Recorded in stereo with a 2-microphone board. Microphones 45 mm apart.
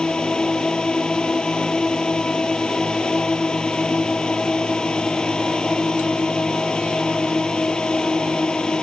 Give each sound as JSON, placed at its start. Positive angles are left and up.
{"t": 0.0, "sound": "a drone", "side_deg": 15}